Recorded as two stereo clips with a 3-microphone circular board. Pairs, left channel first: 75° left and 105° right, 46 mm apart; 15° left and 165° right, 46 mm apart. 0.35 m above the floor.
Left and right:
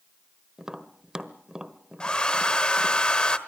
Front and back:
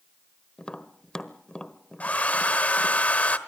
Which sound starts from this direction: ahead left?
A hair dryer, at 2.0 s.